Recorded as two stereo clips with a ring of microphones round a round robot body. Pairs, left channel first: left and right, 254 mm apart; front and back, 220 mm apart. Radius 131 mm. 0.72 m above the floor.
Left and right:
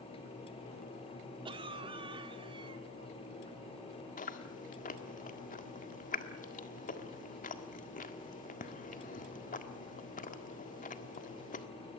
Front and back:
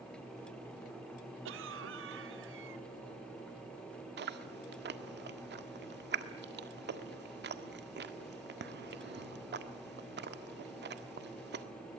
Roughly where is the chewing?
Behind left.